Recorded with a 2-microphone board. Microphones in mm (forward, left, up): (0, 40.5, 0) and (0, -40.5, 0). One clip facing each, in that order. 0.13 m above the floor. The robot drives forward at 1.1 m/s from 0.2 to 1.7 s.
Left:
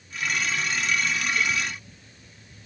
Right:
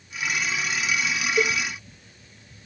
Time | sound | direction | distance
1.4 | a cowbell | 75° right (ahead or behind) | ?